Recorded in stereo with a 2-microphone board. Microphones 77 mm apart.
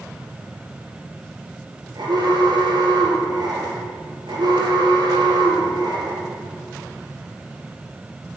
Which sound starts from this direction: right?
An alarm, at 1.9 s.